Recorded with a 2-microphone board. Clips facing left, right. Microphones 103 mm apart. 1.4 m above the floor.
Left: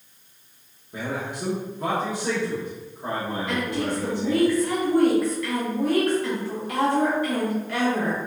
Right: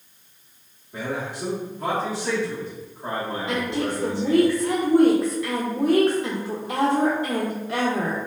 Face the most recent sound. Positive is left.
turn(degrees=-25)  # may be behind; listen again after turning